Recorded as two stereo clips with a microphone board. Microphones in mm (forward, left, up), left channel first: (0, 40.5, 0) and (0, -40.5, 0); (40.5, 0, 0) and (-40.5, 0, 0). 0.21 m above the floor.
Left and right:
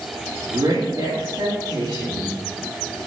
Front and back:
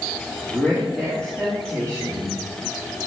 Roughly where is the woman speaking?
Right.